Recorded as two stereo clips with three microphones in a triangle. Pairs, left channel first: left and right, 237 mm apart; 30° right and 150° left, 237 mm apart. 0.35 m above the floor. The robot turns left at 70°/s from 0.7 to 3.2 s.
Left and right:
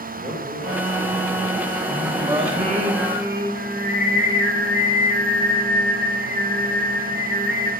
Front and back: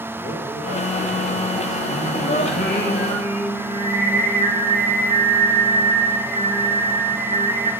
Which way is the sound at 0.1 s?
175° left.